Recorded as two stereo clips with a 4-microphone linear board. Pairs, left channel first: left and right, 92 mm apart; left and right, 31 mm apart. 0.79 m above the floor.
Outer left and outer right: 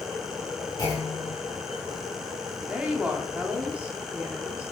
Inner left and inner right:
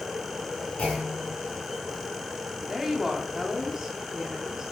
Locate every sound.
0.8 s a clunk: 35° left (ahead or behind), 3.5 m
2.7 s a woman speaking: 15° right (ahead or behind), 1.7 m